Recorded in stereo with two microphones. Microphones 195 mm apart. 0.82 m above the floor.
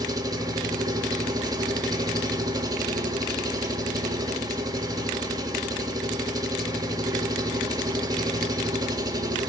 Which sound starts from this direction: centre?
An engine running, at 0.0 s.